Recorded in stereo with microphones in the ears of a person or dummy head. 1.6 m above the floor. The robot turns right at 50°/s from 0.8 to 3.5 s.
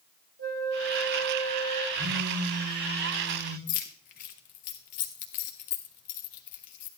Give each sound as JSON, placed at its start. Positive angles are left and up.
{"t": 0.4, "sound": "a flute", "azimuth_deg": -110, "distance_m": 3.0}
{"t": 1.9, "sound": "a phone buzzing", "azimuth_deg": -85, "distance_m": 4.0}
{"t": 3.7, "sound": "keys jangling", "side_deg": 40, "distance_m": 0.8}